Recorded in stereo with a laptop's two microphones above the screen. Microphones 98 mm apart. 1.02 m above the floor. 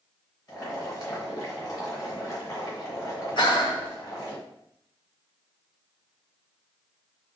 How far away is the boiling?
About 0.8 m.